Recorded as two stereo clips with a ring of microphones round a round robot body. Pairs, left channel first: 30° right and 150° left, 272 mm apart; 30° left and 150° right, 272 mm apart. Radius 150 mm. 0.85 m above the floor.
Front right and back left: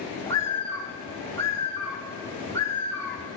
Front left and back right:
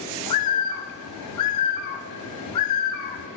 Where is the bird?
50° left, 0.7 m.